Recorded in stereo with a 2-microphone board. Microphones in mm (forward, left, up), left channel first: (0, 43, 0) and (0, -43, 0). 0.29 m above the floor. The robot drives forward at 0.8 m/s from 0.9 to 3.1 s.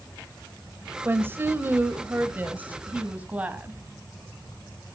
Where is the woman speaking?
25° right (ahead or behind), 1.2 m; by 3.8 s 15° right (ahead or behind), 1.8 m.